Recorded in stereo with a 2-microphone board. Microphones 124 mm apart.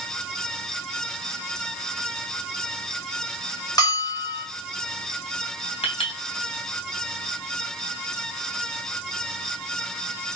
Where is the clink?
55° left (ahead or behind), 2.5 m.